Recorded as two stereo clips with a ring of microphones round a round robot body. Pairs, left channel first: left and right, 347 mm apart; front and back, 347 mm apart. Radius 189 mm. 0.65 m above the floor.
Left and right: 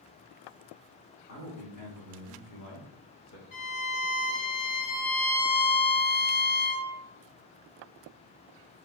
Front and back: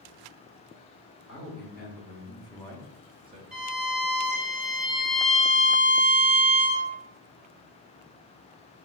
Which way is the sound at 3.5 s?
90° left.